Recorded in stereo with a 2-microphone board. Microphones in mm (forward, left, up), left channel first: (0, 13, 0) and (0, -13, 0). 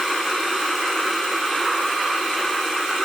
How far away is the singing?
No singing in this recording.